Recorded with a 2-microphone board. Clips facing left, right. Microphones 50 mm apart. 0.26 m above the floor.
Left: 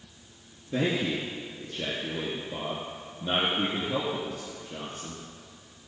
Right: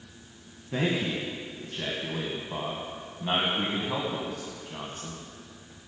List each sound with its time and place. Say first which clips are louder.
0.7 s a man speaking: left 1 dB; 55° right (ahead or behind), 2.0 m